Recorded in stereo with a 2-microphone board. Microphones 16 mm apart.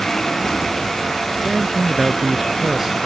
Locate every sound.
1.4 s a man speaking: 30° right (ahead or behind); by 3.1 s 35° right (ahead or behind)